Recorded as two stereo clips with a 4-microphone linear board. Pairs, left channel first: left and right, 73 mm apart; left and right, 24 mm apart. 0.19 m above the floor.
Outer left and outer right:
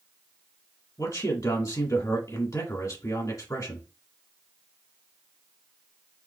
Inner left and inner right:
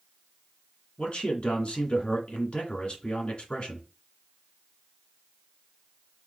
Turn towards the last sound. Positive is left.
turn(degrees=50)  # may be behind; listen again after turning